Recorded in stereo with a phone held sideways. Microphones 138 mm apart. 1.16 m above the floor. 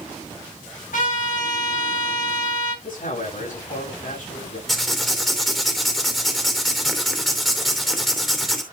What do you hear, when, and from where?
0.9 s a trumpet: 75° left (ahead or behind), 6.5 m
2.8 s a man speaking: 75° left (ahead or behind), 6.5 m
4.7 s writing: centre (ahead or behind), 3 m